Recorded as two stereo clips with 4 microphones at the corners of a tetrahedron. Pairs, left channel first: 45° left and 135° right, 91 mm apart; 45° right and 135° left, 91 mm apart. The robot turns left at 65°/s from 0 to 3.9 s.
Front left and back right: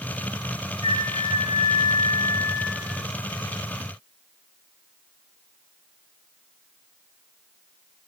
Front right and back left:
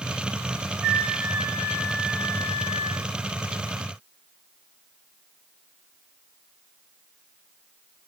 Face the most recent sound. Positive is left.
turn(degrees=-120)